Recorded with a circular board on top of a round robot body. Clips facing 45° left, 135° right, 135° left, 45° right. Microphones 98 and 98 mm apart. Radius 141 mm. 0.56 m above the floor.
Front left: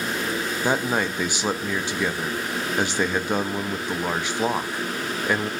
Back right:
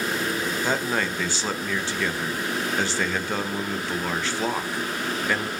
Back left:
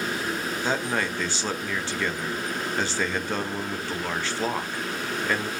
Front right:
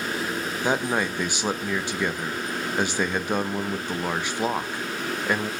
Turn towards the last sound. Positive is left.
turn(degrees=0)